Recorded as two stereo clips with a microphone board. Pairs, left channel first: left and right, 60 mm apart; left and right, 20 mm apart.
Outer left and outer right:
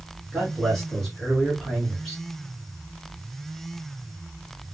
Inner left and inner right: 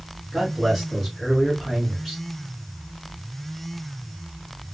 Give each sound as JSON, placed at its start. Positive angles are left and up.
{"t": 0.3, "sound": "a man speaking", "side_deg": 0, "distance_m": 1.5}